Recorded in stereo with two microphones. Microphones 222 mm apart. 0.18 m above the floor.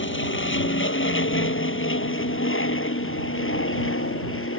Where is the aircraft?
60° left (ahead or behind); by 4.6 s 70° left (ahead or behind).